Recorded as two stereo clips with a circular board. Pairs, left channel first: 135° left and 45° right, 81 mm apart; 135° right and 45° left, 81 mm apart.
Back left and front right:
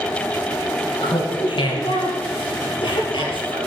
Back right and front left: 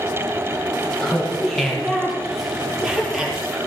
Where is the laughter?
145° left, 5 m; by 3.6 s 125° left, 6 m.